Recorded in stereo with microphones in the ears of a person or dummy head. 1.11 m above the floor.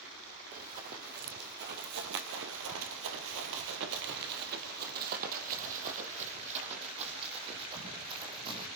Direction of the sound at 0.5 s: 45° right (ahead or behind).